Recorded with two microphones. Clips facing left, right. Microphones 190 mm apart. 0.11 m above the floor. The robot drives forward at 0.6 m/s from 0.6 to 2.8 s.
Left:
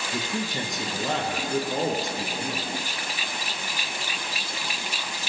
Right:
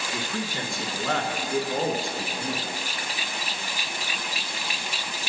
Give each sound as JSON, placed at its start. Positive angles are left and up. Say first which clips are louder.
{"t": 0.1, "sound": "a man speaking", "louder": "left 2 dB", "side_deg": 20, "distance_m": 1.6}